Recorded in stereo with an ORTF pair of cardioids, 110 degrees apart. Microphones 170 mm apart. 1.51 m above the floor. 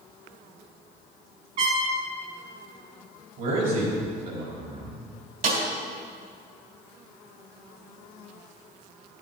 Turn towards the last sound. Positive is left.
turn(degrees=-60)